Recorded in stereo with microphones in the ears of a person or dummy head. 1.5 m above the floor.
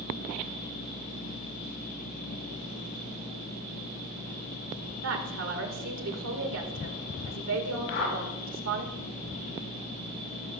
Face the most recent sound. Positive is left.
turn(degrees=85)